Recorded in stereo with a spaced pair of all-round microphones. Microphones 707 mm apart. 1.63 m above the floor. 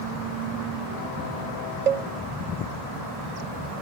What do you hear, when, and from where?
1.9 s a cowbell: 80° right